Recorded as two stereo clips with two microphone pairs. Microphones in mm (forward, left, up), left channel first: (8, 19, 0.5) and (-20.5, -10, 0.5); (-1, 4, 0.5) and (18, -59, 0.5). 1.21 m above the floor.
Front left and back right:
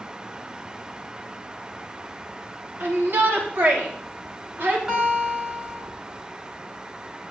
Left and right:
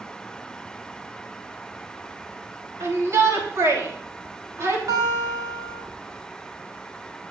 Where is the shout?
115° right, 3 m.